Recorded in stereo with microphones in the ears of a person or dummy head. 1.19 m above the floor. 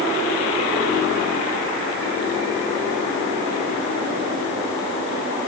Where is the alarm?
No alarm in this recording.